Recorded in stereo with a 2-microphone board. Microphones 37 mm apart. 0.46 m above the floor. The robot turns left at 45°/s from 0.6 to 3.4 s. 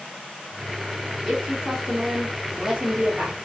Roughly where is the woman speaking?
Centre.